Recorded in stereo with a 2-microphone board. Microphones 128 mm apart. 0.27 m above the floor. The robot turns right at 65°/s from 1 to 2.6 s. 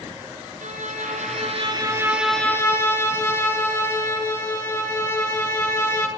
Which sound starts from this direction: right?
A violin, at 0.6 s.